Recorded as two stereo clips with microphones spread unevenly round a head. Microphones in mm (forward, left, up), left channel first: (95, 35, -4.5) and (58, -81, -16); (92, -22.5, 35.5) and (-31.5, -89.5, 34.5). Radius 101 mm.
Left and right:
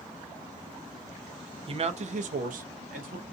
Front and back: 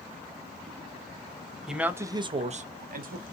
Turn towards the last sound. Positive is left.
turn(degrees=-140)